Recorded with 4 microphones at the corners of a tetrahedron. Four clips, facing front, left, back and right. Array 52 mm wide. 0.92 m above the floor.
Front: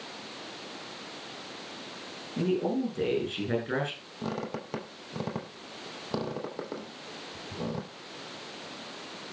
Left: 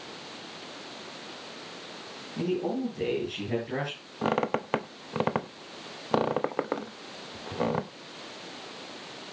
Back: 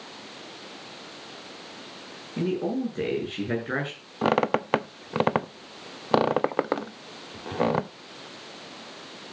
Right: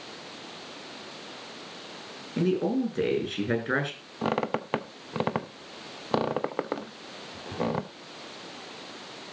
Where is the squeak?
175° left, 0.6 m.